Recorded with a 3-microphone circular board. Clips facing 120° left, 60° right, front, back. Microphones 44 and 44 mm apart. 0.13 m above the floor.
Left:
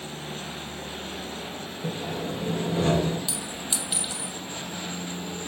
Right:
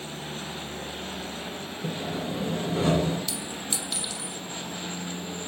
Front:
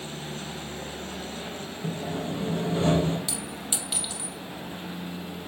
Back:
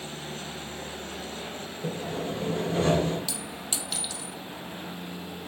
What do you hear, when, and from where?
1.8 s sawing: 145° right, 2 m
3.3 s a clink: 60° left, 1.2 m